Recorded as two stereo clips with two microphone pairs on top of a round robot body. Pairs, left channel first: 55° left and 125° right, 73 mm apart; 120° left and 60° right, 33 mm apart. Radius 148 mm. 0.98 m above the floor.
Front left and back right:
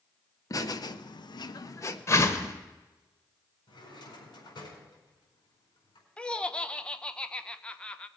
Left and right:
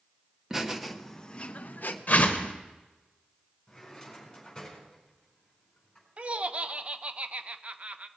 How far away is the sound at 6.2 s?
About 0.9 m.